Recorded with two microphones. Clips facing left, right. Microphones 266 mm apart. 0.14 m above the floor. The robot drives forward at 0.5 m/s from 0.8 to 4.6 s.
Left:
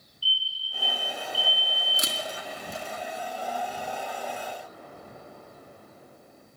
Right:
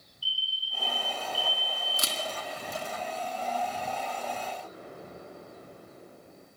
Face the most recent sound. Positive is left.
turn(degrees=-40)  # may be behind; listen again after turning